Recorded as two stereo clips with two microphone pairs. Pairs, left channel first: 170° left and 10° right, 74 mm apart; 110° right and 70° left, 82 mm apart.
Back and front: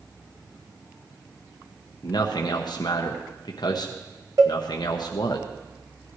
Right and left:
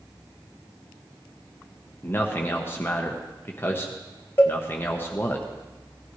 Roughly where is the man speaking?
Behind.